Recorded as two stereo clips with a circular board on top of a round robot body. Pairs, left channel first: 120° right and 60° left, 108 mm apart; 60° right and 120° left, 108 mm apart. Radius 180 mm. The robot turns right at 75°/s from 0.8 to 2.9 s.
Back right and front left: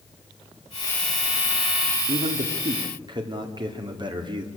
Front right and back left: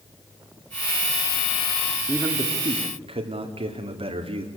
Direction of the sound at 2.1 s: 40° left.